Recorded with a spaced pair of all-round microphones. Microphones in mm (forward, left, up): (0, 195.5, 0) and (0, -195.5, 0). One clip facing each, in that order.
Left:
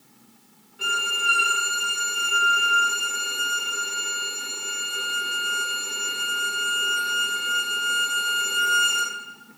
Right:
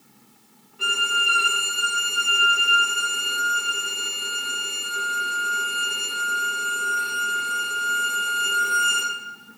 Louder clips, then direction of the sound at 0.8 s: Right 1 dB; 10° right (ahead or behind).